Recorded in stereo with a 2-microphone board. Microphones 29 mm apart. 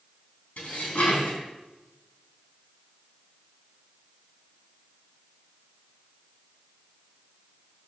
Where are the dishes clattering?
60° left (ahead or behind), 3 m.